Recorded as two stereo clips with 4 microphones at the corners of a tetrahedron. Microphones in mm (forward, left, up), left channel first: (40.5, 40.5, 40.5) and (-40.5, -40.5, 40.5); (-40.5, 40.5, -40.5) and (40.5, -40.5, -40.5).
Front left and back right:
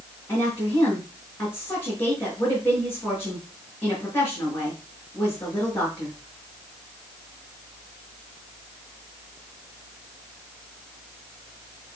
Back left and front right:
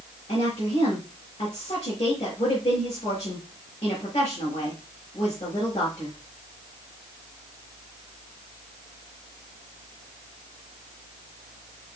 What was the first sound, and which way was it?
A woman speaking, 115° left.